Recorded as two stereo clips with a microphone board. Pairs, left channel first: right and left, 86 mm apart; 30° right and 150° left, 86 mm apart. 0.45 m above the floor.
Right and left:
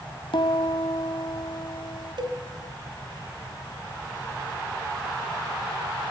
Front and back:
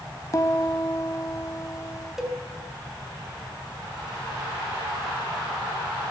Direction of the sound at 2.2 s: 65° left.